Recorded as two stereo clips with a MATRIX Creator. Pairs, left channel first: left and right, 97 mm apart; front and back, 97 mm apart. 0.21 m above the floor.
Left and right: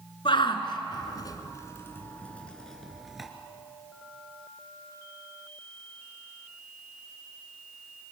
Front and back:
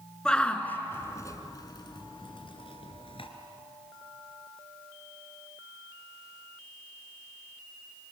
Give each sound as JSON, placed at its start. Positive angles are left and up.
{"t": 0.2, "sound": "a shout", "azimuth_deg": 80, "distance_m": 2.0}